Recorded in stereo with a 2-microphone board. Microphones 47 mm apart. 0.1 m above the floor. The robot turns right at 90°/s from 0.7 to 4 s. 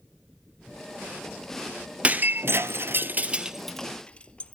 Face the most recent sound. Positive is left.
turn(degrees=25)  # may be behind; listen again after turning